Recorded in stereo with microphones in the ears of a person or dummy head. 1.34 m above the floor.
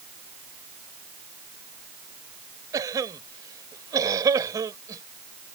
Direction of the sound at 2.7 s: 20° right (ahead or behind).